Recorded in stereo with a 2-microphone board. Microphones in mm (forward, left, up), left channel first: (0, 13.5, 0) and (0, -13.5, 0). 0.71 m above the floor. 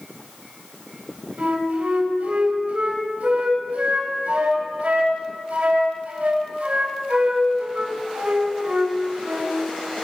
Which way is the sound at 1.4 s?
75° right (ahead or behind).